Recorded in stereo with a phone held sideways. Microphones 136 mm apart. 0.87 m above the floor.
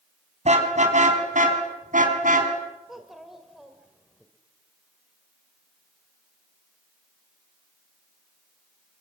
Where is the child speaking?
Centre (ahead or behind), 2.0 m.